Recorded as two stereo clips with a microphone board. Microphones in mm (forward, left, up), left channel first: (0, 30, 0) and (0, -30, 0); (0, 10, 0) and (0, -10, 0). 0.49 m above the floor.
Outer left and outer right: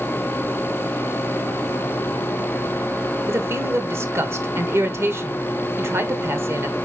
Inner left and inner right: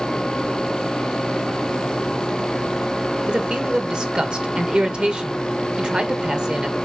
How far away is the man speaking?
About 1.6 m.